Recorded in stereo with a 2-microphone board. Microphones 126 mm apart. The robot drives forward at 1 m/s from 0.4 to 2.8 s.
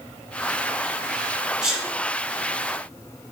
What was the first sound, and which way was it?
A sneeze, 5° right (ahead or behind).